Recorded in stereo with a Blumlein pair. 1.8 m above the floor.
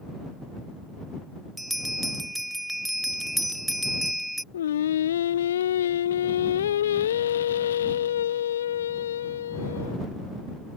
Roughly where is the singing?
Ahead left.